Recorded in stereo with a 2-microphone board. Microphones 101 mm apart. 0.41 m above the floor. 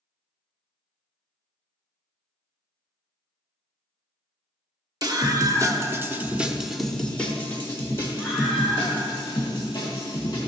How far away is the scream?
About 1.1 m.